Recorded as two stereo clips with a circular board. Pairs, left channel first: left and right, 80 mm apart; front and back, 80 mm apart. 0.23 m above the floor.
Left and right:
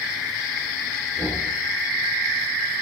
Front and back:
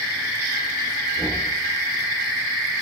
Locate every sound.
1.2 s knocking: 150° left, 2.5 m